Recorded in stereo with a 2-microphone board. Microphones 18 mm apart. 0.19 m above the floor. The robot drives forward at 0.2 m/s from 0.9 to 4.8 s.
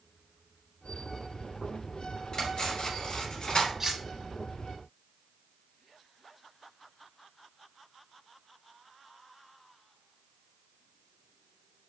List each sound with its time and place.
2.3 s cutlery clinking: 55° left (ahead or behind), 1.6 m; by 3.7 s 60° left (ahead or behind), 1.5 m
3.8 s cutlery clinking: 20° right (ahead or behind), 0.9 m